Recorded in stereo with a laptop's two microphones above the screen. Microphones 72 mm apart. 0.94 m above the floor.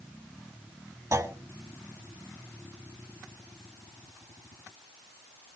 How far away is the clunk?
About 2 m.